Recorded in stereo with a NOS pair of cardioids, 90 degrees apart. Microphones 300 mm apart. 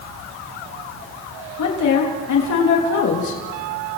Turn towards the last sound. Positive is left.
turn(degrees=70)